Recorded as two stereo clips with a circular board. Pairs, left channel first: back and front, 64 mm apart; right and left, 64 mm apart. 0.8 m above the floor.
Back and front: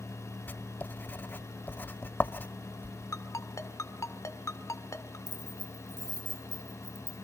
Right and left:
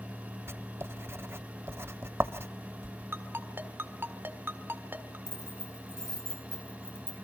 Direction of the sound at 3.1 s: 145° left.